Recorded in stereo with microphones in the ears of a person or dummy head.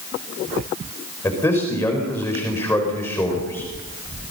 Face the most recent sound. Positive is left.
turn(degrees=10)  # may be behind; listen again after turning